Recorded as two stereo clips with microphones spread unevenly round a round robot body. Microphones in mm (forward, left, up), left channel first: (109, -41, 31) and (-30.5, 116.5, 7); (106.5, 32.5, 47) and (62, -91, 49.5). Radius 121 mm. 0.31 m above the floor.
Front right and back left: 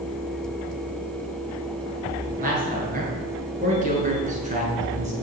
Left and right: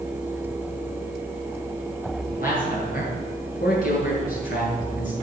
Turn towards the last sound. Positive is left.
turn(degrees=80)